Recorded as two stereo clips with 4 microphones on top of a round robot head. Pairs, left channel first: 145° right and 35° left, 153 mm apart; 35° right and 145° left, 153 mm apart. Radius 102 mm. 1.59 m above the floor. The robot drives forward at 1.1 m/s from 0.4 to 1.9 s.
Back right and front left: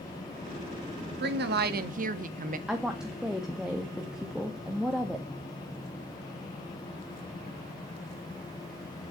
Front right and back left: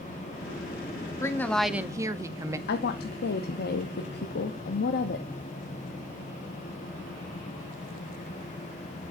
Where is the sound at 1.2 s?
35° left, 1.2 m; by 2.6 s 70° left, 0.8 m.